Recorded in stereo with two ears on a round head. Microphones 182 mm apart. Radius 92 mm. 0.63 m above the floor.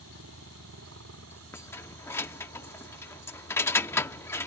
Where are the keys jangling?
10° left (ahead or behind).